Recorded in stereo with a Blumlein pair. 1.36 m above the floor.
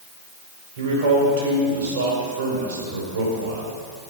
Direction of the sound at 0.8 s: 60° right.